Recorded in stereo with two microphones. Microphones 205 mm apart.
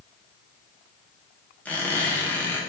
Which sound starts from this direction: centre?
A squeak, at 1.6 s.